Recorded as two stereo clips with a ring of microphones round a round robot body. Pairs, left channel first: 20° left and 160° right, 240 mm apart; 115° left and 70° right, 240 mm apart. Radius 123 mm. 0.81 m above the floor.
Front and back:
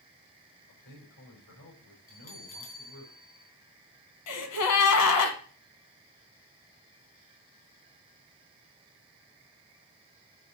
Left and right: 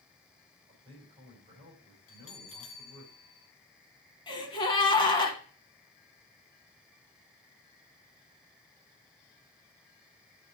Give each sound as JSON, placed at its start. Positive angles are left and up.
{"t": 0.7, "sound": "a man speaking", "azimuth_deg": 0, "distance_m": 4.0}
{"t": 2.1, "sound": "a bell", "azimuth_deg": 80, "distance_m": 2.0}
{"t": 4.3, "sound": "a gasp", "azimuth_deg": 40, "distance_m": 1.3}